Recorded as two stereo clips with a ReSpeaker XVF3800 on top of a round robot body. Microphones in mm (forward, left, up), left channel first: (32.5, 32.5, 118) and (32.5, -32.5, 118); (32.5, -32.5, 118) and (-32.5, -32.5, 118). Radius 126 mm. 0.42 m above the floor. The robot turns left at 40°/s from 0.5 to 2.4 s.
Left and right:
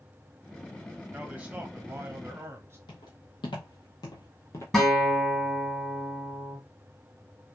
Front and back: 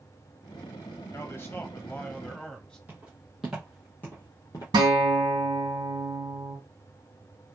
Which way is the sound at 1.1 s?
20° right.